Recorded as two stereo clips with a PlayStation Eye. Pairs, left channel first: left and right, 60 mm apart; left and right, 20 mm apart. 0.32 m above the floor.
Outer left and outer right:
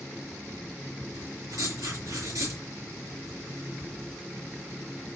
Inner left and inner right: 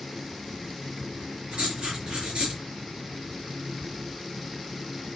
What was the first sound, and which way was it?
Writing, 70° right (ahead or behind).